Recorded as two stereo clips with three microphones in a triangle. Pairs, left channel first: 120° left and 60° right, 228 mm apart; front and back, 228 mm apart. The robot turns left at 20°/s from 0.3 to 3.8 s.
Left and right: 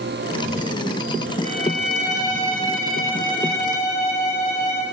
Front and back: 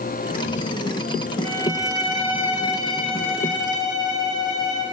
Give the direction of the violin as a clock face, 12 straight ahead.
8 o'clock.